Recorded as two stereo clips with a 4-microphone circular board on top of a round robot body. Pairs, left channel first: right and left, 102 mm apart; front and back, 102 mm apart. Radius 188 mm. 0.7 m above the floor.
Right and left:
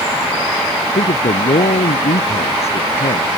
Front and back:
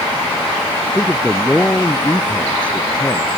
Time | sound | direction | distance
0.9 | a man speaking | 80° right | ?